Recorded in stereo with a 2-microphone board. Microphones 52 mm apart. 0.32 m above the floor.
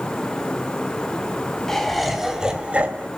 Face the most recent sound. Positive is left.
turn(degrees=-35)  # may be behind; listen again after turning